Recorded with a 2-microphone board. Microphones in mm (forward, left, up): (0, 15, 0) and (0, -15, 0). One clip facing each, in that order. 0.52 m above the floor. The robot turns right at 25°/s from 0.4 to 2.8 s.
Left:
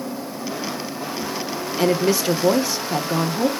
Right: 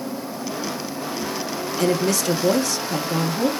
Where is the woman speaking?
20° left (ahead or behind), 0.6 m; by 3.5 s 15° left (ahead or behind), 0.6 m.